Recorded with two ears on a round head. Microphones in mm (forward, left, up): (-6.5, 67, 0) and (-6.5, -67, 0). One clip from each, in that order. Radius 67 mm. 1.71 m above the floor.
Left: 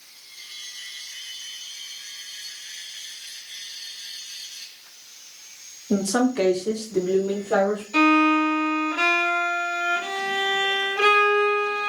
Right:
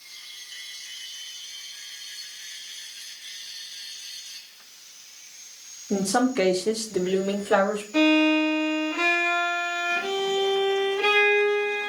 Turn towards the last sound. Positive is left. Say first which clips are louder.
# left 2 dB
turn(degrees=45)  # may be behind; listen again after turning